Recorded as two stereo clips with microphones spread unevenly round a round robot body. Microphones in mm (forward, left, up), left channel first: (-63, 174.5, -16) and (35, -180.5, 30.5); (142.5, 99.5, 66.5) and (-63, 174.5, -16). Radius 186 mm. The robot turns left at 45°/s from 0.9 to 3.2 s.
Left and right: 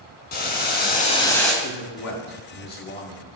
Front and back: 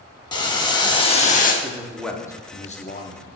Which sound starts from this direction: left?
A man speaking, at 1.6 s.